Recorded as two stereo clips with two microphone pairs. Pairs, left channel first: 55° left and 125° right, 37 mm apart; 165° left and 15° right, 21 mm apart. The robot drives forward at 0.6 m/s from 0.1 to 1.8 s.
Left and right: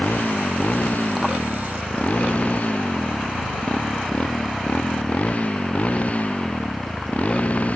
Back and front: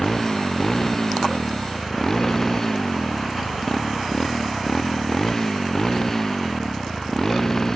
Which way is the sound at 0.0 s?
100° left.